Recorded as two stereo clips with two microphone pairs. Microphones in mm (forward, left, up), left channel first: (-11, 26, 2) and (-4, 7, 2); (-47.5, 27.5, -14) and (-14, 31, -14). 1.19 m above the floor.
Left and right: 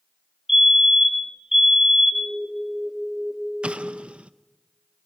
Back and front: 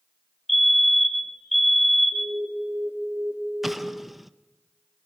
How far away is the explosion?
About 0.6 m.